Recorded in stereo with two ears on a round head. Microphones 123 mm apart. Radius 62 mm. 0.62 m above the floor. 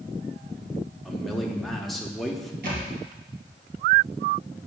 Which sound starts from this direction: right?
A thud, at 2.6 s.